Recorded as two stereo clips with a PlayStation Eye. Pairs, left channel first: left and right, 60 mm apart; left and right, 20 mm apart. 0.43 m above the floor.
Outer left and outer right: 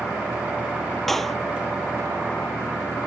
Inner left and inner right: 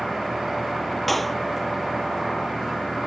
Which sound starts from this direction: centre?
A clap, at 1.1 s.